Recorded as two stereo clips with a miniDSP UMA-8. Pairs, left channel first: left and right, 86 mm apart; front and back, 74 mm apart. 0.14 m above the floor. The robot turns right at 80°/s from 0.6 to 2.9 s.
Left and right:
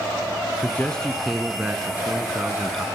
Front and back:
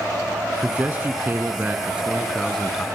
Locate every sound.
0.6 s a man speaking: 130° left, 1.2 m; by 2.9 s 50° right, 1.2 m